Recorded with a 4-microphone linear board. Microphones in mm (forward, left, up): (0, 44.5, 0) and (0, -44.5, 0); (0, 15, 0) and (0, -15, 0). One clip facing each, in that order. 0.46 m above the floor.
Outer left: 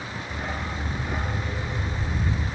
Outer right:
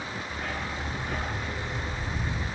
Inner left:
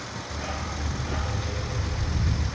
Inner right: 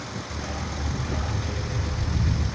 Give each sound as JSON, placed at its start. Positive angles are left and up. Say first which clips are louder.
{"t": 0.3, "sound": "a dog barking", "louder": "outer left 4 dB, inner left 2 dB", "side_deg": 20, "distance_m": 4.0}